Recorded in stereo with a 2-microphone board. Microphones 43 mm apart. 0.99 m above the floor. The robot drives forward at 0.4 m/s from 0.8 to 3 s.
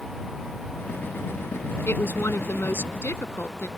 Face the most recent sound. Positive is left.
turn(degrees=75)  # may be behind; listen again after turning